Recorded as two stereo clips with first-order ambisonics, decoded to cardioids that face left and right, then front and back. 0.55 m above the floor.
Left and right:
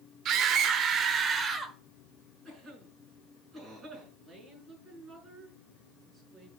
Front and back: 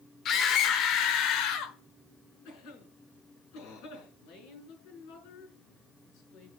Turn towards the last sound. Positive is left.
turn(degrees=-5)